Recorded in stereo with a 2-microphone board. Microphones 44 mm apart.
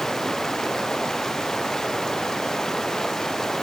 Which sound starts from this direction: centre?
Running water, at 0.0 s.